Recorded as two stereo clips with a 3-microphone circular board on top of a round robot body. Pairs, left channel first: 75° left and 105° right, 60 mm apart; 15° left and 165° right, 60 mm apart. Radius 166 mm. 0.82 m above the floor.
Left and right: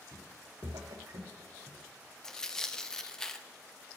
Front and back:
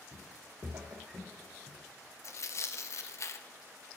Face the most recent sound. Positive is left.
turn(degrees=-5)